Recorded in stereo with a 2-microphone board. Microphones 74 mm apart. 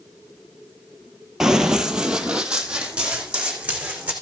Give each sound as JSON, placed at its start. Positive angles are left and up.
{"t": 1.4, "sound": "running footsteps", "side_deg": -10, "distance_m": 1.6}